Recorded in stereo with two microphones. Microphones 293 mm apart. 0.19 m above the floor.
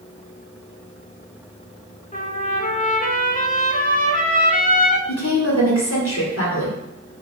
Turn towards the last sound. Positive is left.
turn(degrees=50)  # may be behind; listen again after turning